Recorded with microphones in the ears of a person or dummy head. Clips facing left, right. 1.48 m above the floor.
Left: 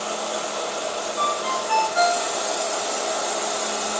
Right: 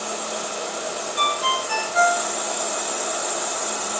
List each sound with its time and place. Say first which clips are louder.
0.0 s an insect: left 2 dB; 20° right (ahead or behind), 1.8 m
1.2 s a ringtone: even; 40° right (ahead or behind), 0.7 m